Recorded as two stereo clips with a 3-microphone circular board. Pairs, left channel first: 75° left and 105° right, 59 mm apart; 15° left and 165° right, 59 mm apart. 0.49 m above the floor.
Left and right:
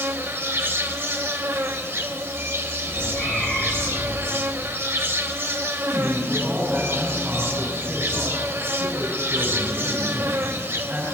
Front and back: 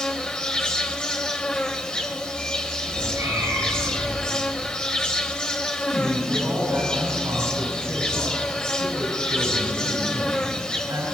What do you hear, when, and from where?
0.0 s an insect: 60° right, 1.0 m
2.9 s a cat meowing: 155° left, 8 m
5.8 s a man speaking: 170° right, 6 m